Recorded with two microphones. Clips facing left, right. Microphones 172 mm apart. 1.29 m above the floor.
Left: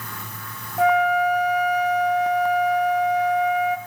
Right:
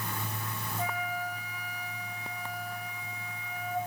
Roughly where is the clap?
No clap in this recording.